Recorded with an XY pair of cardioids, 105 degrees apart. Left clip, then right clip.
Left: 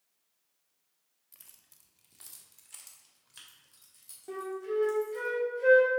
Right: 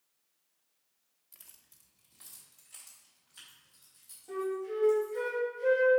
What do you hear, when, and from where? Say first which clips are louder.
1.3 s keys jangling: even; straight ahead, 0.9 m; by 5.3 s 60° left, 4.5 m
4.3 s a flute: even; 60° left, 2 m